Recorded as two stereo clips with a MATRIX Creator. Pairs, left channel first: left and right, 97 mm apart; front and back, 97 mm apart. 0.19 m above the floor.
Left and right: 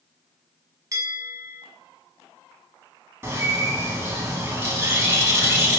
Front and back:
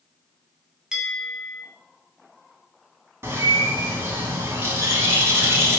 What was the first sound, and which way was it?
A bell, 105° right.